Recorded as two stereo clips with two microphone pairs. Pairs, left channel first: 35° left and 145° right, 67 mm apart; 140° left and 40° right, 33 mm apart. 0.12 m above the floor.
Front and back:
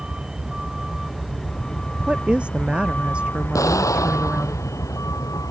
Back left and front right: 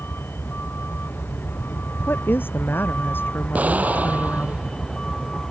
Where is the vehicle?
135° left; by 5.5 s 70° left.